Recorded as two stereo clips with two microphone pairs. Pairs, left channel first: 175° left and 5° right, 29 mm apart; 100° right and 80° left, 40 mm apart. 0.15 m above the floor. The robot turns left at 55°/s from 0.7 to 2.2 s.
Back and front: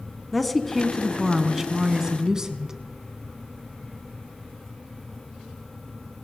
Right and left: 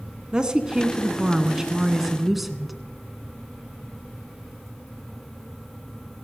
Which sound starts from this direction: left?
A woman speaking, at 0.3 s.